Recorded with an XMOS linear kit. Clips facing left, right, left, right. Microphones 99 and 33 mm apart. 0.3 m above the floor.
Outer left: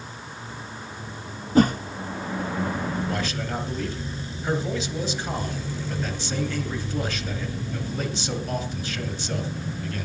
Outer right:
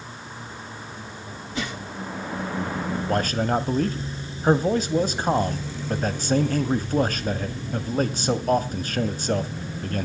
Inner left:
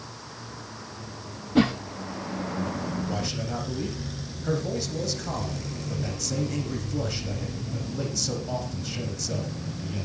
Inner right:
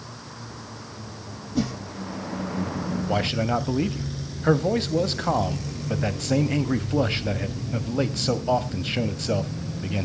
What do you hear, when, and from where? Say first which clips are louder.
1.6 s a whoosh: outer left 13 dB, inner left 5 dB; 40° left (ahead or behind), 0.8 m
3.1 s a man speaking: outer right 6 dB, inner right 7 dB; 40° right (ahead or behind), 1.4 m